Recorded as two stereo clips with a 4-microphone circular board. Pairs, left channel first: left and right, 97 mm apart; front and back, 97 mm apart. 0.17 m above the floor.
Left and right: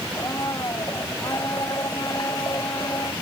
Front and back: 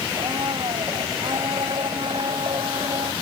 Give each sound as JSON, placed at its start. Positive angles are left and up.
{"t": 0.1, "sound": "a blender", "azimuth_deg": 145}